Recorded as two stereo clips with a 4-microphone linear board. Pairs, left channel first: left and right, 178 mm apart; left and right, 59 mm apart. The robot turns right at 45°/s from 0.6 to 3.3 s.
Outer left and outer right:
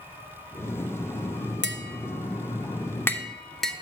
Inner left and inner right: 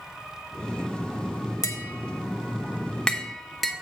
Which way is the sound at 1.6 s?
75° left (ahead or behind).